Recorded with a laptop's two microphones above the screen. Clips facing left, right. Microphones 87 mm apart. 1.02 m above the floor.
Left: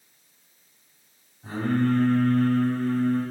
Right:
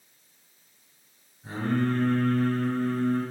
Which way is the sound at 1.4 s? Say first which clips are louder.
Left 3 dB; 65° left (ahead or behind).